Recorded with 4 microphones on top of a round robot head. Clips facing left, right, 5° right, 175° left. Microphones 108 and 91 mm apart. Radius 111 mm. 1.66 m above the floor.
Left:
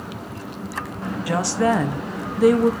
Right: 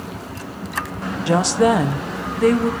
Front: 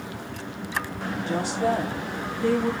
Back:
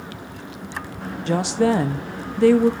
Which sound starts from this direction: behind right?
A woman speaking, at 1.3 s.